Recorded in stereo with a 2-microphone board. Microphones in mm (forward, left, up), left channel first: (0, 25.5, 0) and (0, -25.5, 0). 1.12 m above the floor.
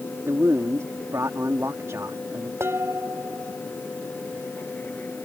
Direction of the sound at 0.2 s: 65° right (ahead or behind).